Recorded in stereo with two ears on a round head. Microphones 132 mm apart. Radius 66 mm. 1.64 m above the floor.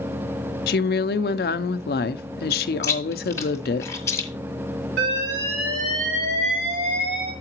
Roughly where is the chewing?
Left.